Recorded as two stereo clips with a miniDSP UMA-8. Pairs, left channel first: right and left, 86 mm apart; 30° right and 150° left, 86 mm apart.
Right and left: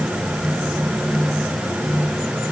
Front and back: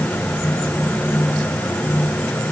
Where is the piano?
I don't hear a piano.